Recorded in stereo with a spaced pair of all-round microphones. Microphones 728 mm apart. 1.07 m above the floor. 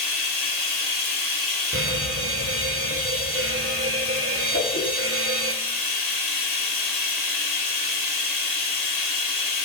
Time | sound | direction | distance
0.0 | running water | 65° left (ahead or behind) | 1.2 m
1.7 | a fire alarm | 20° right (ahead or behind) | 1.1 m
4.5 | a whoosh | 15° left (ahead or behind) | 1.9 m